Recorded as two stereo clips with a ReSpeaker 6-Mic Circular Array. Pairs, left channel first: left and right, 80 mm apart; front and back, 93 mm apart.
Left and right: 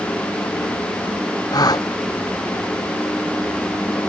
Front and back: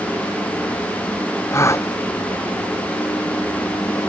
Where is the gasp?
60° left.